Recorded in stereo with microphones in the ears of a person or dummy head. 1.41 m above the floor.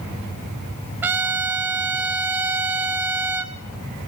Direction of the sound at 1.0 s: 15° right (ahead or behind).